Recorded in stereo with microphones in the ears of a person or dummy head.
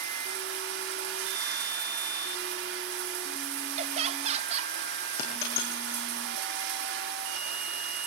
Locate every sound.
0.0 s running water: 75° right (ahead or behind), 2 m
3.8 s laughter: 40° right (ahead or behind), 1.0 m
5.2 s a dropped coin: 60° left (ahead or behind), 6 m